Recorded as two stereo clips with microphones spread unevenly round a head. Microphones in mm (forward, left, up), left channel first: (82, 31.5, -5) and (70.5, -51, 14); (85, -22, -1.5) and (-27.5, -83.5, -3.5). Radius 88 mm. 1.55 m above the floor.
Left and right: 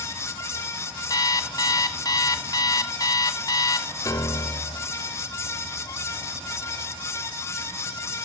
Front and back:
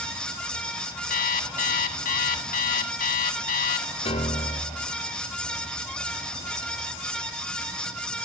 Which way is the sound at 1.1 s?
35° left.